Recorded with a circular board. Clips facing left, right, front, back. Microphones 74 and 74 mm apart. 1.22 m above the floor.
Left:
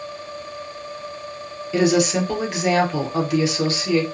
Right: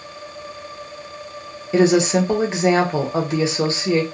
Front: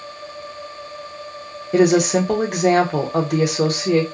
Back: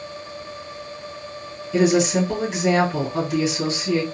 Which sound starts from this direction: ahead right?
A woman speaking, at 1.7 s.